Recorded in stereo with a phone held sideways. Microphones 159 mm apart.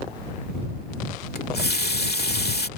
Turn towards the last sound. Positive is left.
turn(degrees=85)